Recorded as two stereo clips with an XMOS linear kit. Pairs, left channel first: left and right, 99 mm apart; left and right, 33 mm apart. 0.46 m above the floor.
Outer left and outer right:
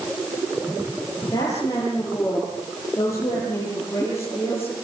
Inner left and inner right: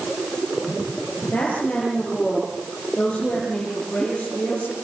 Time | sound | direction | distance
1.2 | a woman speaking | 35° left (ahead or behind) | 9.5 m